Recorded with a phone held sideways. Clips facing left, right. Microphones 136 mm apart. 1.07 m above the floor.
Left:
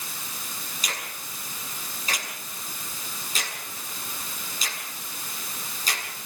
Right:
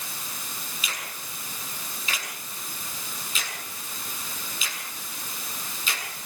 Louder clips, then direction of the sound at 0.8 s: Left 3 dB; 40° left (ahead or behind).